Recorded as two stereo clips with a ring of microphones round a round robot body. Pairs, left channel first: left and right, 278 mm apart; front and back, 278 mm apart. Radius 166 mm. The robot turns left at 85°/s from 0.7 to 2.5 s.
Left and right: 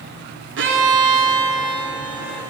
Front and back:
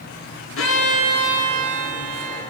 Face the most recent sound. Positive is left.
turn(degrees=165)